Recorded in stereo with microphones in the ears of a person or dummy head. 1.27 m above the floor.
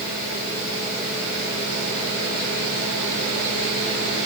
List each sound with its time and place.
Only background noise.